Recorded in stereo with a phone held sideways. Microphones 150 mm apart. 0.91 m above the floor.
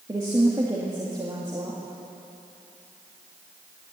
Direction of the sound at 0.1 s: 25° right (ahead or behind).